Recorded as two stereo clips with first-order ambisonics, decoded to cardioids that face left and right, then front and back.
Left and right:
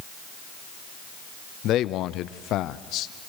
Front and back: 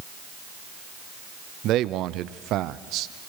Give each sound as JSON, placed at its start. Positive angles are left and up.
{"t": 1.6, "sound": "a man speaking", "azimuth_deg": 135, "distance_m": 0.6}